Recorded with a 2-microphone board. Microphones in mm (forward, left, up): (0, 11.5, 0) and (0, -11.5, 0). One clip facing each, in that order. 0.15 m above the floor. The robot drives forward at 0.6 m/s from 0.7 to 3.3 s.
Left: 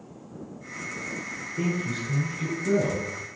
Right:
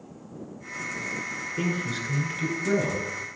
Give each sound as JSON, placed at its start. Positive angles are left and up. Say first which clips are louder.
{"t": 1.6, "sound": "a man speaking", "louder": "left 1 dB", "side_deg": -50, "distance_m": 1.7}